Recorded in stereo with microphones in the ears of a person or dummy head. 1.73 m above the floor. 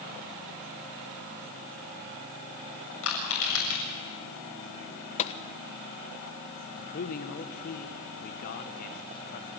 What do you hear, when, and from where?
3.0 s crushing: 75° left (ahead or behind), 7.5 m
5.2 s a gunshot: 35° left (ahead or behind), 1.2 m
6.8 s a man speaking: 45° left (ahead or behind), 1.5 m